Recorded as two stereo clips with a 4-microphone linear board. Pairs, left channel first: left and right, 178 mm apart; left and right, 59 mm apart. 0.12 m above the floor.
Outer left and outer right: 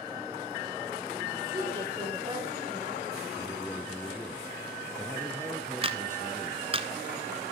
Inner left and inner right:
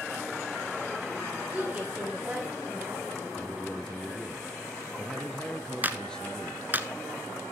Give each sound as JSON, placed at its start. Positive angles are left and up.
{"t": 1.5, "sound": "a woman speaking", "side_deg": -25, "distance_m": 8.5}
{"t": 3.4, "sound": "a man speaking", "side_deg": 15, "distance_m": 2.5}
{"t": 5.8, "sound": "a clap", "side_deg": -30, "distance_m": 1.1}